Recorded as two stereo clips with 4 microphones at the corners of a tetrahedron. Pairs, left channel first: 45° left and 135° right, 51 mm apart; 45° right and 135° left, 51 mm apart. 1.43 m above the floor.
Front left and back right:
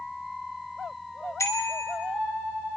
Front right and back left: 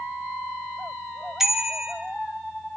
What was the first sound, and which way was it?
A bicycle bell, 55° left.